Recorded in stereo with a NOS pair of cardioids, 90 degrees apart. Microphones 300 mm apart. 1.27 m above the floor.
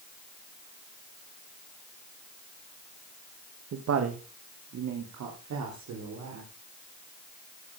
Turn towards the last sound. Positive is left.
turn(degrees=-70)